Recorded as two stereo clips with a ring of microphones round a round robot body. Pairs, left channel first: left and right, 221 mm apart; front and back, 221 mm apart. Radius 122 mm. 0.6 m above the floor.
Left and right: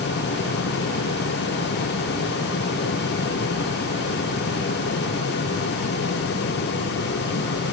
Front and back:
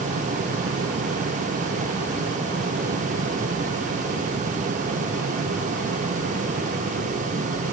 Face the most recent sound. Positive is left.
No sound to turn to.